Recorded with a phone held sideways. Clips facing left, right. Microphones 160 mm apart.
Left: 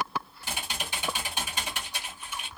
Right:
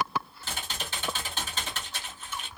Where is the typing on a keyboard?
15° left (ahead or behind), 1.0 m.